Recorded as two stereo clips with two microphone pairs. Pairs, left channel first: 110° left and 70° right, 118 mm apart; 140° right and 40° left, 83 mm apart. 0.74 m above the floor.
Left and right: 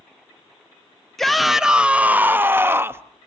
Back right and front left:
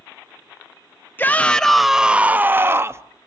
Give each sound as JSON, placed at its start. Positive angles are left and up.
{"t": 1.2, "sound": "a shout", "azimuth_deg": -170, "distance_m": 0.7}